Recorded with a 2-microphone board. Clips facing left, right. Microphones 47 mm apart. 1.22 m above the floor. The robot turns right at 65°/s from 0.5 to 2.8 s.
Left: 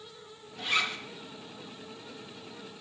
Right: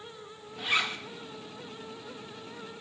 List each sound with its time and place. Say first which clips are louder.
0.6 s a zipper: right 1 dB; 10° right (ahead or behind), 1.1 m; by 1.0 s 30° right (ahead or behind), 1.1 m